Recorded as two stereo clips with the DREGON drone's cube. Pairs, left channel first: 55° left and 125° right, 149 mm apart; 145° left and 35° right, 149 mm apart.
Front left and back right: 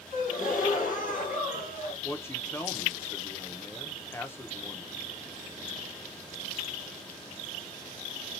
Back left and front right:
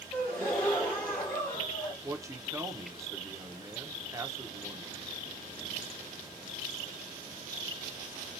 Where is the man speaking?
5° left, 0.7 m.